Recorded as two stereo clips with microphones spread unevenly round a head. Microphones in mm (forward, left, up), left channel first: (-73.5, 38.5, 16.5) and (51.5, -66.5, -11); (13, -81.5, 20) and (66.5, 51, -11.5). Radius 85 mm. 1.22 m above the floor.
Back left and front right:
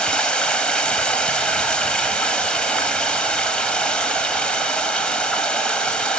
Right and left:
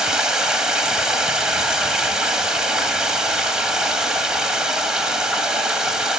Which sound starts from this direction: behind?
Running water, at 0.0 s.